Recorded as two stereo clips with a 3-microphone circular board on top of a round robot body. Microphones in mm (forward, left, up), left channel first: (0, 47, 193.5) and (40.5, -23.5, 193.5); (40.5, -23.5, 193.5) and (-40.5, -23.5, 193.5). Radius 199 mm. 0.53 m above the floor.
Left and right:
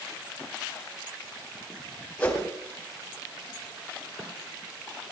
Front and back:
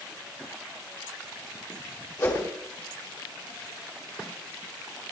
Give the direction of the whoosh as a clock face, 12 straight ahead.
10 o'clock.